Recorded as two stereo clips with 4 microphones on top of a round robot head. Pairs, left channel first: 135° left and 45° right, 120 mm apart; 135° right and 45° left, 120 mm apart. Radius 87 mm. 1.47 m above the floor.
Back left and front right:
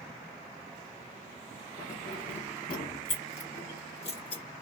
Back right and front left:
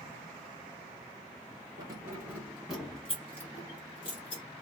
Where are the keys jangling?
105° left, 1.2 m; by 4.4 s straight behind, 1.4 m.